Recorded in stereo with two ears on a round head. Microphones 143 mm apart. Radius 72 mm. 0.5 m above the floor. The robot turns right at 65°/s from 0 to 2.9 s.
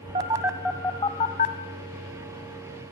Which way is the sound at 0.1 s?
30° right (ahead or behind).